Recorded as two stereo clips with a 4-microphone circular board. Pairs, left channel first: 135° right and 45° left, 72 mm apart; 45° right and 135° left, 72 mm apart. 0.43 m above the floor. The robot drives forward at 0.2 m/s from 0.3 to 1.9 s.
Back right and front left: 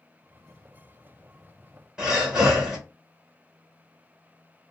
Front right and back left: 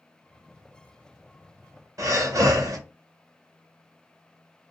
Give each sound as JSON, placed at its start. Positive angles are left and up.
{"t": 2.0, "sound": "breathing", "azimuth_deg": 120, "distance_m": 1.2}